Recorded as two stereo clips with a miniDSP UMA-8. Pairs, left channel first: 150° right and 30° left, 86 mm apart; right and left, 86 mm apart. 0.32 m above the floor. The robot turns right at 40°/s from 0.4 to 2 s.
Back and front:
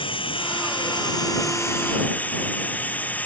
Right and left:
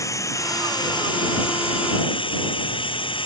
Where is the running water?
140° right; by 3.3 s 80° right.